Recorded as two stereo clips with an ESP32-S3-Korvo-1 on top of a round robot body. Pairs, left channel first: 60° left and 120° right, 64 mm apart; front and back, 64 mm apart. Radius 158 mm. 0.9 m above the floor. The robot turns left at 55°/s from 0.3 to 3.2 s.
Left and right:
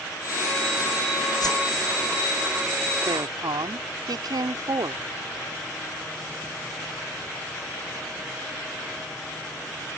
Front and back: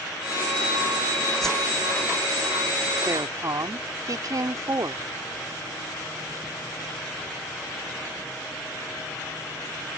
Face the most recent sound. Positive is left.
turn(degrees=-145)